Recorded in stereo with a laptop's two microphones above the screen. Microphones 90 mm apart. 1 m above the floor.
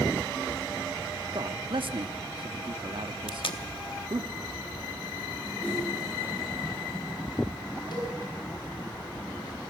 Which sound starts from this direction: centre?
A whoosh, at 5.6 s.